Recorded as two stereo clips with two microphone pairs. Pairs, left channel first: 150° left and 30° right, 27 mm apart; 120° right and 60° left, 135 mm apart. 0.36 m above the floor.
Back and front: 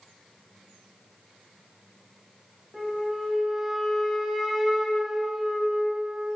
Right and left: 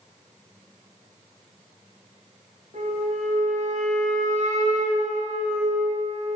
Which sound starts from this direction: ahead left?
A flute, at 2.7 s.